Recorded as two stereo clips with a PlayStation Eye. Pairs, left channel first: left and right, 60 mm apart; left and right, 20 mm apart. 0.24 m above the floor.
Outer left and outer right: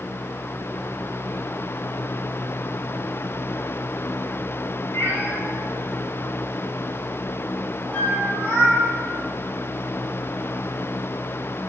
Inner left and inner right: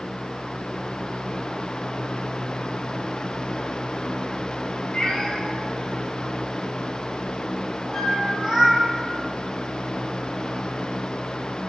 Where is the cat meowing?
45° left (ahead or behind), 1.8 m; by 8.8 s 25° right (ahead or behind), 3 m.